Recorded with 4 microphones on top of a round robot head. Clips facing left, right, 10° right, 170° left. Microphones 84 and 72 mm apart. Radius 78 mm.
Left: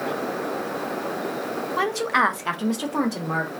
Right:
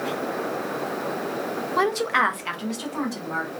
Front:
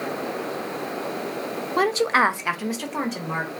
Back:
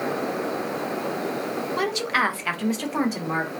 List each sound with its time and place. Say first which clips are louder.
1.8 s a woman speaking: even, front 6 dB; 25° right, 0.5 m; by 3.5 s 90° left, 0.9 m